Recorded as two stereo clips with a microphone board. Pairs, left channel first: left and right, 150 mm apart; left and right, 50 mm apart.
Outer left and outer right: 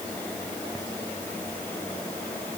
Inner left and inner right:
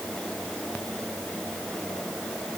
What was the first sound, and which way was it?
Only background noise.